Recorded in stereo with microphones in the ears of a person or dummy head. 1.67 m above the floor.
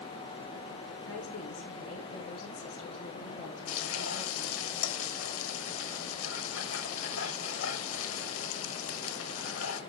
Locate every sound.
1.0 s a woman speaking: 80° left, 6 m
3.7 s frying: 80° left, 1.2 m